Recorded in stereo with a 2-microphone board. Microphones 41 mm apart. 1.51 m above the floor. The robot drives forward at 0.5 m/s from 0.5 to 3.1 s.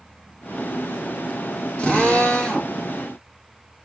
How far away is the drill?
About 1.2 m.